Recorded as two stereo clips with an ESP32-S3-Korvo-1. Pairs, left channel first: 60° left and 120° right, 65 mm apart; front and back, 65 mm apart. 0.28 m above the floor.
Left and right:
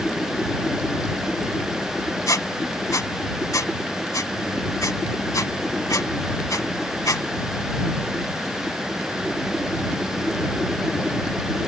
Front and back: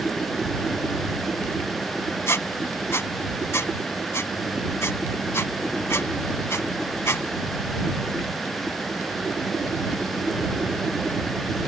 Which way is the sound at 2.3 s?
40° left.